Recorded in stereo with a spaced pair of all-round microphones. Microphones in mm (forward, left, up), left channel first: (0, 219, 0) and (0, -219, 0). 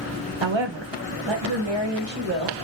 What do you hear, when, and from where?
0.4 s a woman speaking: 75° right (ahead or behind), 0.7 m; by 2.5 s 65° right (ahead or behind), 1.8 m